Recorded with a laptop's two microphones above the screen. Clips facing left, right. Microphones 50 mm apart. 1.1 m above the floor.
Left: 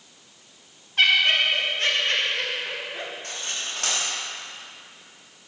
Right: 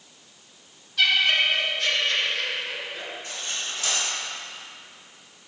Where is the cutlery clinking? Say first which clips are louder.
Even; 60° left (ahead or behind), 1.4 m.